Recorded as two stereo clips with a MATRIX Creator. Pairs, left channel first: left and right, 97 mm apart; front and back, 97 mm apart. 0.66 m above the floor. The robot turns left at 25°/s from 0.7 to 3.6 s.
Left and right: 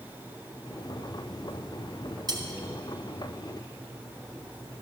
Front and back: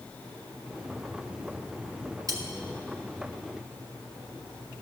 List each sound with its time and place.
2.3 s cutlery clinking: 130° right, 1.9 m; by 2.4 s 135° right, 1.9 m